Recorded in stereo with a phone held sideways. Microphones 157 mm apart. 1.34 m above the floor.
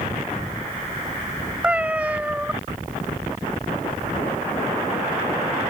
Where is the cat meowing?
10° right (ahead or behind).